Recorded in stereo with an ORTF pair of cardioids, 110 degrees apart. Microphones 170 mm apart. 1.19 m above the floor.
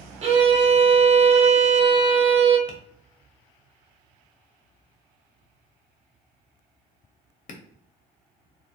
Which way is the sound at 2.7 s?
50° left.